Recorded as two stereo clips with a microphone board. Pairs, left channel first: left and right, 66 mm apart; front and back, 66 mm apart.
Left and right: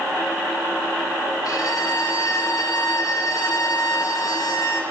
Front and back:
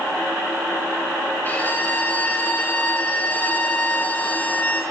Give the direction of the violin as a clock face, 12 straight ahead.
10 o'clock.